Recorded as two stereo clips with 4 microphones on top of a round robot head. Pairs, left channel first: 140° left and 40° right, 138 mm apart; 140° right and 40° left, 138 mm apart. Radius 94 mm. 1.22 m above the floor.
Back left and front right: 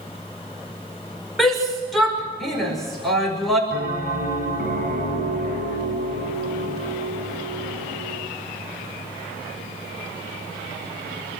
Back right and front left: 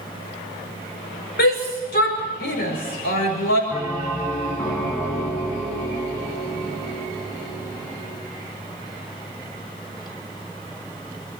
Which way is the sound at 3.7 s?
60° right.